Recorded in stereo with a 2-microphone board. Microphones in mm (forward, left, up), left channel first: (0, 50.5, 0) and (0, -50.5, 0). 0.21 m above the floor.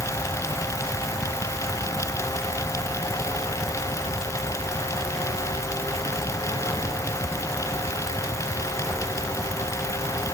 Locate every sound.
Only background noise.